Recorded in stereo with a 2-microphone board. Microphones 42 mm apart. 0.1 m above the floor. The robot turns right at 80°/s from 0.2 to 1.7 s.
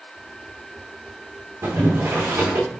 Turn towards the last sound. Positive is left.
turn(degrees=-75)  # may be behind; listen again after turning